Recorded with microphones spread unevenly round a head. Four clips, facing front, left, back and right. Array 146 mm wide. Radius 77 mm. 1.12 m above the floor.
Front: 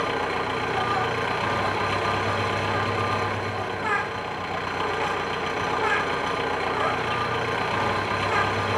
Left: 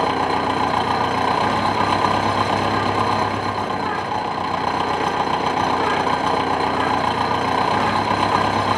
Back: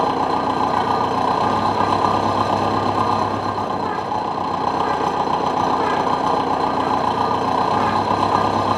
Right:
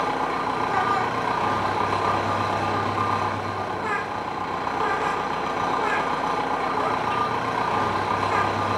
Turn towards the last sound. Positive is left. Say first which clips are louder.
# left 5 dB, back 8 dB
turn(degrees=155)